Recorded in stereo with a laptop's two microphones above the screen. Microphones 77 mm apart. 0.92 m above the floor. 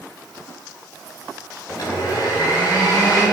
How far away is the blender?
About 4 m.